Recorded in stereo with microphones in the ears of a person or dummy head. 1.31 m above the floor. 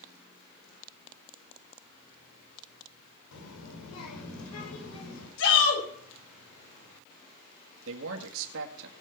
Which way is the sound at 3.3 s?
75° left (ahead or behind).